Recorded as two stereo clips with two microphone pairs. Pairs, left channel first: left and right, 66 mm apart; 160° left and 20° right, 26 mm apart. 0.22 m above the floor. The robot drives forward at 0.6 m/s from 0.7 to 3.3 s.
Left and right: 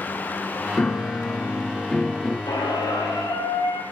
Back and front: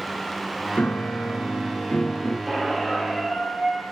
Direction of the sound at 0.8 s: 150° left.